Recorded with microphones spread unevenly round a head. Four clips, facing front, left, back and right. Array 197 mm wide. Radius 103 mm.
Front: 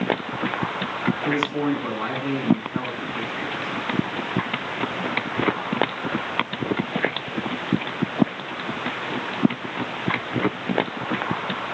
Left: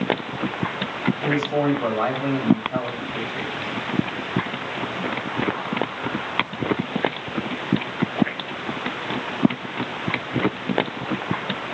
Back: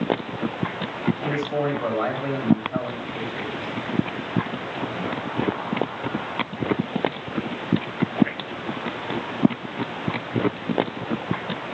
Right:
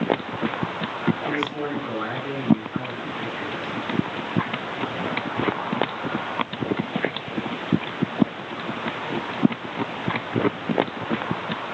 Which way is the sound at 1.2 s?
125° left.